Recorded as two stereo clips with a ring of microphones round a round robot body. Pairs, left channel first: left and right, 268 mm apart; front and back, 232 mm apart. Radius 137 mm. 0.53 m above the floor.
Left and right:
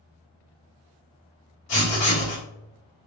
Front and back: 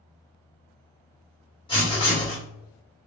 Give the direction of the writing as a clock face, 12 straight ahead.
10 o'clock.